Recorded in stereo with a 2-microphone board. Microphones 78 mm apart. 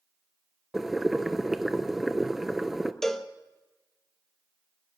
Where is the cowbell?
5° left (ahead or behind), 0.8 m.